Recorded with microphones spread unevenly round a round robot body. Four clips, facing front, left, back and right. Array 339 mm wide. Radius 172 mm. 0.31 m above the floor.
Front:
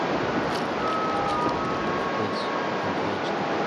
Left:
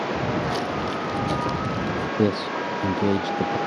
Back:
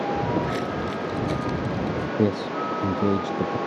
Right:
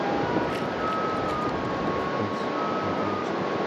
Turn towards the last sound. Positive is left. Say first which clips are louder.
# left 4 dB, back 3 dB
turn(degrees=125)